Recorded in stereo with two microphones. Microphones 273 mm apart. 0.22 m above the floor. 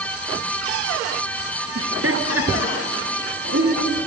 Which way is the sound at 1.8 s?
55° right (ahead or behind).